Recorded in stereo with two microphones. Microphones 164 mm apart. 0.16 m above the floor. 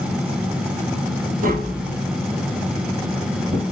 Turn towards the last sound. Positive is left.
turn(degrees=-55)  # may be behind; listen again after turning